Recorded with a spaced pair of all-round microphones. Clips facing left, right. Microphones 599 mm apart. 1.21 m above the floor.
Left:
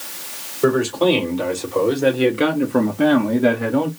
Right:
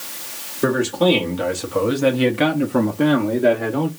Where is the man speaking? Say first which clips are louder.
Left 1 dB; 45° right (ahead or behind), 1.5 m; by 3.9 s 45° left (ahead or behind), 0.8 m.